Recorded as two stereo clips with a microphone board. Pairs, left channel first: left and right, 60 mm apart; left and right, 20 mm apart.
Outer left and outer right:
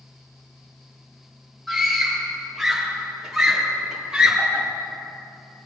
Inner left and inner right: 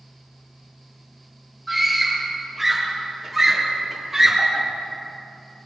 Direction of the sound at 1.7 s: Centre (ahead or behind).